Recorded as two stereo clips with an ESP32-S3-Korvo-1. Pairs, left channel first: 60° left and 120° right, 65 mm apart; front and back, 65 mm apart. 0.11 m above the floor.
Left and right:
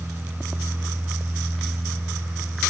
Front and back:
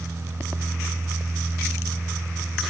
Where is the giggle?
I don't hear a giggle.